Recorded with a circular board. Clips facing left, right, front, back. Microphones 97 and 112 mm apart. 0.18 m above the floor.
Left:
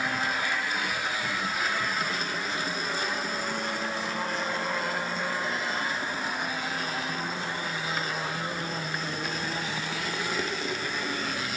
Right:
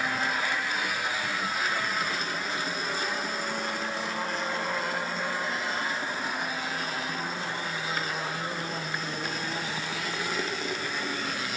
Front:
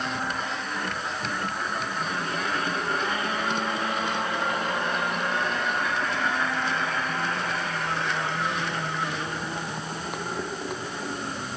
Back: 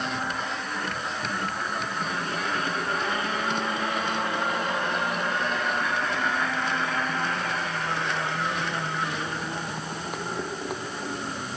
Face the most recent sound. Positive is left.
No sound to turn to.